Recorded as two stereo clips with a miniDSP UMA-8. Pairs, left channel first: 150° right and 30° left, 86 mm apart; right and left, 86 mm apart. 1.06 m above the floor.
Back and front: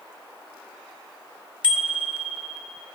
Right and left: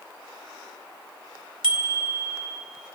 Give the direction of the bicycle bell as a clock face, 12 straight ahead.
9 o'clock.